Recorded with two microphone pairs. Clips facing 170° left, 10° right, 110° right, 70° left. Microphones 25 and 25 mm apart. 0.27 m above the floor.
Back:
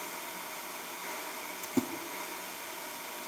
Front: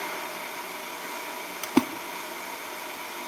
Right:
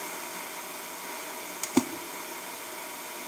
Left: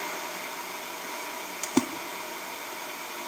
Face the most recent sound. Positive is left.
turn(degrees=-20)